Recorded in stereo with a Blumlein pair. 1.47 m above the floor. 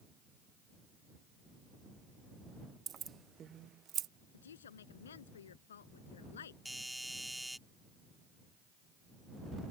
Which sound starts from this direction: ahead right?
Keys jangling, at 2.9 s.